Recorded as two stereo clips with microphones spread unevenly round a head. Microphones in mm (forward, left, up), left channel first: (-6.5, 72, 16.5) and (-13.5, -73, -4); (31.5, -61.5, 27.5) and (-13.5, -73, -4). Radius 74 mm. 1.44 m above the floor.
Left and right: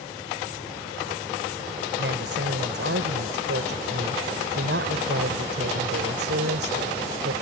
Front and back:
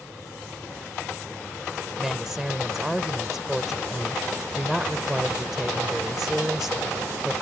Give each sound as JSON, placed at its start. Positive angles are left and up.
{"t": 2.0, "sound": "a woman speaking", "azimuth_deg": -75}